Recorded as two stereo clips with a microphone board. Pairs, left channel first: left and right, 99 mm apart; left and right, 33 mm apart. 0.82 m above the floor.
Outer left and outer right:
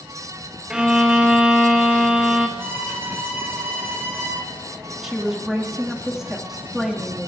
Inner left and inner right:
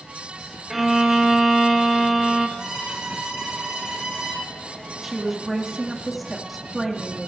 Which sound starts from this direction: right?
A violin, at 2.6 s.